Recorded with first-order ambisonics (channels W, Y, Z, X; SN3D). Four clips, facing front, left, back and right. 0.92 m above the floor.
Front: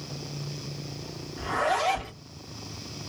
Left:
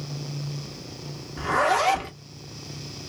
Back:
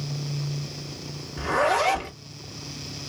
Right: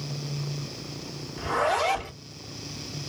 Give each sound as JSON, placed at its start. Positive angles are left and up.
{"t": 1.4, "sound": "a zipper", "azimuth_deg": 125, "distance_m": 1.2}